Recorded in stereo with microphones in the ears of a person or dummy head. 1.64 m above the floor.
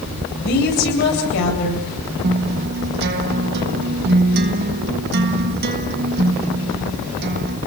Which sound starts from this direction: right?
A guitar, at 2.2 s.